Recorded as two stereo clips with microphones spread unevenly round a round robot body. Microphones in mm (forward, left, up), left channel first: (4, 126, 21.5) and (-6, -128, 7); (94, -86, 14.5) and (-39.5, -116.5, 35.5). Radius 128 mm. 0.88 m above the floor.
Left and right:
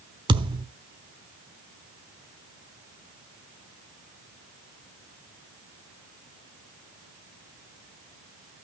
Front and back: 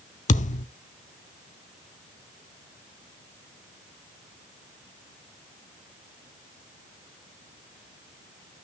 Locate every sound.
0.3 s a thud: 20° right, 1.0 m